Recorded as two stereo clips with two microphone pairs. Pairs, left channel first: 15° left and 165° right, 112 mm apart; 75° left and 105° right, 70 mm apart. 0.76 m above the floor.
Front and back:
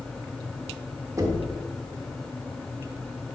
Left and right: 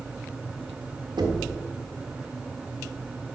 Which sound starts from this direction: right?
Knocking, at 1.2 s.